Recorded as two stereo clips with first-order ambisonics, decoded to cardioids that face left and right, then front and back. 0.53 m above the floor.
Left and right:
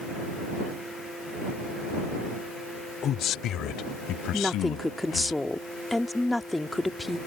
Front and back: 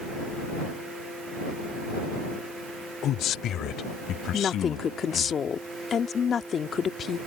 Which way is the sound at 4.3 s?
15° left.